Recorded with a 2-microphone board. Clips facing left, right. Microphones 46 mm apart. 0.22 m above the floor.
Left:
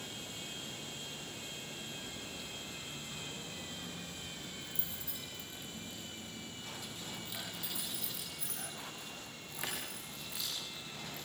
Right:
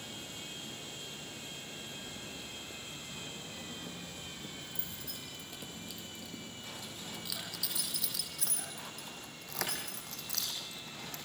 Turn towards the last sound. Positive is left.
turn(degrees=-65)  # may be behind; listen again after turning